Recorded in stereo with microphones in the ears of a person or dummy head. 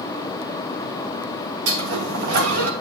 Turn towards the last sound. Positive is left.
turn(degrees=-70)  # may be behind; listen again after turning